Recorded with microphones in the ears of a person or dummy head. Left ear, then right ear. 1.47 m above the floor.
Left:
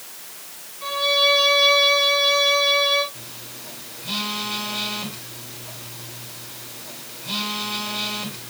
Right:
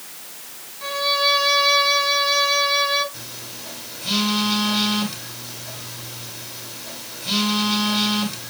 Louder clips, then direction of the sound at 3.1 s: Right 3 dB; 65° right (ahead or behind).